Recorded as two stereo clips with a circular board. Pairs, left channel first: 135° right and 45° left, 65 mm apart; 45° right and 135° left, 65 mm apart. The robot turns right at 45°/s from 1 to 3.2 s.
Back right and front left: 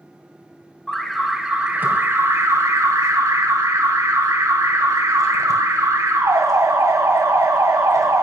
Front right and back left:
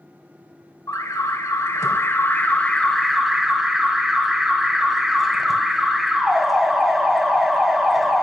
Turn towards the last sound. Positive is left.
turn(degrees=50)